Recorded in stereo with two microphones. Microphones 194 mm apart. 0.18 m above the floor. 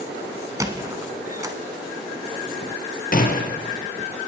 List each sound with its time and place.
0.6 s a squeak: 15° right (ahead or behind), 0.9 m
3.1 s a gunshot: 50° left (ahead or behind), 1.1 m